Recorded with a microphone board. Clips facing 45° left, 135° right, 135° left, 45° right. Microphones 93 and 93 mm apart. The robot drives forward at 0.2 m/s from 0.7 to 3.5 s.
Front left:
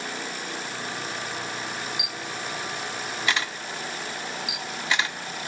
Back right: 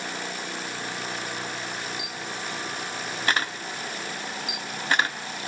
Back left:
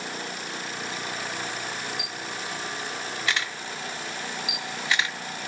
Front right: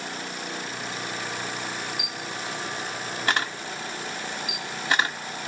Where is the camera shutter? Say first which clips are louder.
Even, front right 1 dB; 75° right, 1.0 m; by 5.2 s 90° right, 1.0 m.